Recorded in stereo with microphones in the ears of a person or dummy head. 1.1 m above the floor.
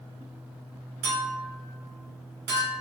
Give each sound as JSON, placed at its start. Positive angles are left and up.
{"t": 1.0, "sound": "a clink", "side_deg": -60, "distance_m": 2.0}